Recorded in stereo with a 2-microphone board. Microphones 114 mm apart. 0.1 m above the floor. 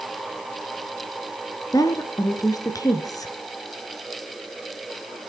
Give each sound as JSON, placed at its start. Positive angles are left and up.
{"t": 1.7, "sound": "a woman speaking", "side_deg": 30, "distance_m": 1.2}